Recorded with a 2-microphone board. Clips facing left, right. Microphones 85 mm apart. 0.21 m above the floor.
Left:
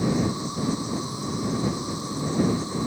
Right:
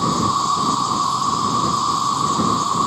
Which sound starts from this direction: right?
An insect, at 0.0 s.